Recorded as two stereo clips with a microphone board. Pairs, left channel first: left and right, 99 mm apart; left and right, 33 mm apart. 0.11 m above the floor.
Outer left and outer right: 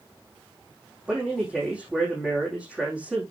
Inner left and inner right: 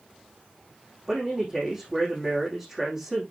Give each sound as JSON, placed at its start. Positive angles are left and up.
{"t": 1.1, "sound": "a man speaking", "side_deg": -15, "distance_m": 5.0}